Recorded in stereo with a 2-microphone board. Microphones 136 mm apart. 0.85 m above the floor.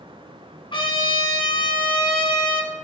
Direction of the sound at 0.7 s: 35° left (ahead or behind).